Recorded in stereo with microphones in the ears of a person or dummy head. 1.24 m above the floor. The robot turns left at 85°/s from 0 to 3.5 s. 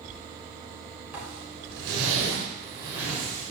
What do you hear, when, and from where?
1.1 s a zipper: 10° right (ahead or behind), 6 m; by 3.5 s 30° left (ahead or behind), 6 m